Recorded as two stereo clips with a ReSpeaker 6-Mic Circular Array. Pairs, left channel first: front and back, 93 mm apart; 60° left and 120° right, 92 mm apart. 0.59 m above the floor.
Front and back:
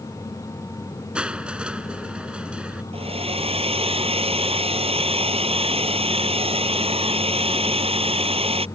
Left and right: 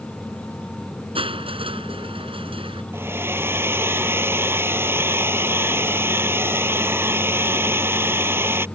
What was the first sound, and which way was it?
Crushing, 100° right.